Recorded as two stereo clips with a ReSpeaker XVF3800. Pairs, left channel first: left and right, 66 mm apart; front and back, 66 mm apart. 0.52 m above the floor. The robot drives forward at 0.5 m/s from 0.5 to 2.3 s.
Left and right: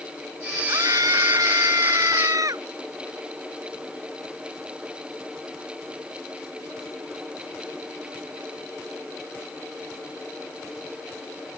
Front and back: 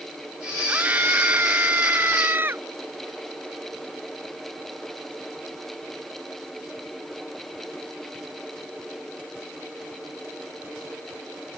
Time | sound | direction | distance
0.7 | a scream | 115° right | ?